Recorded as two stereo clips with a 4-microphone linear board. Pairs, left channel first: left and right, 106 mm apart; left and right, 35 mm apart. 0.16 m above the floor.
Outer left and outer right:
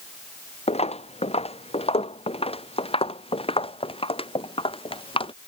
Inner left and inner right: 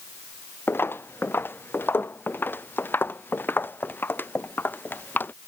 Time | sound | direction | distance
0.7 | footsteps | 80° left | ?